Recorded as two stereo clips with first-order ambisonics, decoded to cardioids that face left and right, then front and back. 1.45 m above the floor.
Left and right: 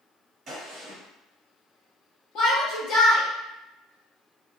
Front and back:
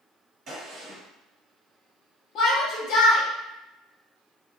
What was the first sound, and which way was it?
A gunshot, 135° right.